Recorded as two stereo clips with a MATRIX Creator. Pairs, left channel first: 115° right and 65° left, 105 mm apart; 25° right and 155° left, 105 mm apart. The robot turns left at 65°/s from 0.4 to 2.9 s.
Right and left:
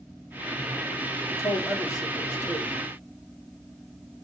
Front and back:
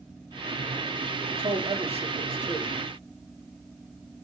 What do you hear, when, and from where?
1.3 s a man speaking: 170° right, 3 m; by 2.8 s 95° left, 3 m